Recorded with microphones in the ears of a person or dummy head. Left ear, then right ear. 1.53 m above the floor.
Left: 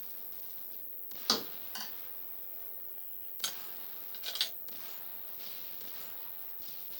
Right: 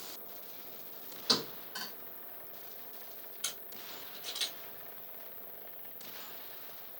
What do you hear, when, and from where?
0.0 s an insect: 35° left (ahead or behind), 1.5 m
1.3 s a thud: 35° left (ahead or behind), 1.6 m
3.4 s a camera shutter: 45° left (ahead or behind), 1.2 m